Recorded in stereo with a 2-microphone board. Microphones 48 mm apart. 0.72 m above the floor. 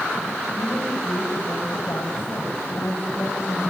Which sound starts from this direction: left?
A woman speaking, at 0.6 s.